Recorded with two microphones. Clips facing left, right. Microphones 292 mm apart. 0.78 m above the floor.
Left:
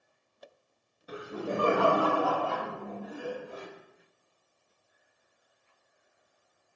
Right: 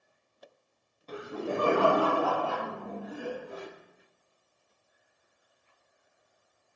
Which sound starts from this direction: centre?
Laughter, at 1.1 s.